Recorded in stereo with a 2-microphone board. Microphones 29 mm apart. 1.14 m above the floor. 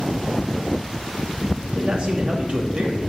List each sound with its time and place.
1.6 s a man speaking: 35° right (ahead or behind), 2.5 m